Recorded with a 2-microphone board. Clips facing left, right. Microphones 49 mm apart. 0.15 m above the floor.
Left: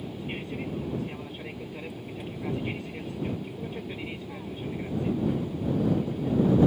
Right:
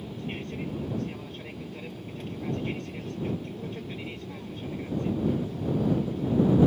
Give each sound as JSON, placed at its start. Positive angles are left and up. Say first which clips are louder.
{"t": 0.0, "sound": "an aircraft", "louder": "even", "side_deg": 15}